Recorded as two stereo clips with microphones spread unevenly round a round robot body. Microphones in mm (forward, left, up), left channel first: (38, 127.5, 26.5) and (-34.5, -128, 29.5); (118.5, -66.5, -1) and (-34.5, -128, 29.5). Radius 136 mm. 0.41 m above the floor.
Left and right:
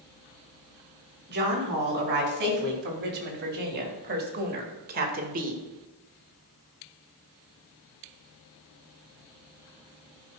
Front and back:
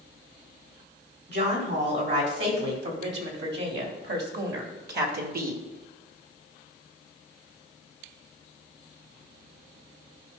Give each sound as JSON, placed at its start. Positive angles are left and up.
{"t": 1.3, "sound": "a woman speaking", "azimuth_deg": -155, "distance_m": 3.0}